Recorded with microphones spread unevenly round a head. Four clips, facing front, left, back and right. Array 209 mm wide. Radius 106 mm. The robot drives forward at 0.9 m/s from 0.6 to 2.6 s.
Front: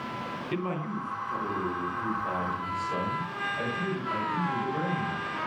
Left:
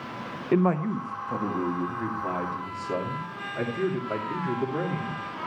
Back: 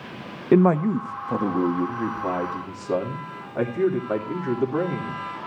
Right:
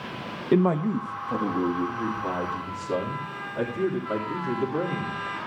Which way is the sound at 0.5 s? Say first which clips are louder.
Right 2 dB, back 16 dB; 170° right.